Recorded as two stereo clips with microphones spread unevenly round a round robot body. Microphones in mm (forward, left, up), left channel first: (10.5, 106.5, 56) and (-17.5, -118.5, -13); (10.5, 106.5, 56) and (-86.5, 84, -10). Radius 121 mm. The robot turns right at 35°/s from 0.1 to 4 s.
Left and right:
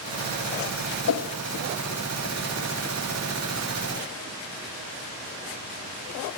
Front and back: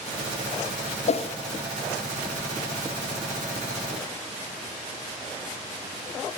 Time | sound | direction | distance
1.1 | a whoosh | 55° left | 0.6 m